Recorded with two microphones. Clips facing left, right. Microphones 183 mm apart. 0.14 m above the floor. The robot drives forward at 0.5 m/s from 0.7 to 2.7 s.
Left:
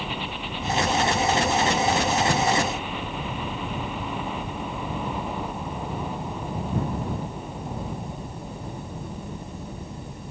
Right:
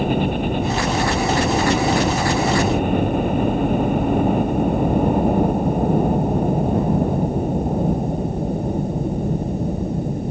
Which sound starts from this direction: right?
A helicopter, at 0.0 s.